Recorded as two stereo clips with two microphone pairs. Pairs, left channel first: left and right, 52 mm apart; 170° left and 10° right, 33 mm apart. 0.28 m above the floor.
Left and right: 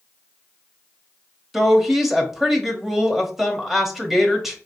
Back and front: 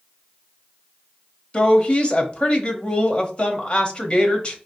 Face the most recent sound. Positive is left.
turn(degrees=-170)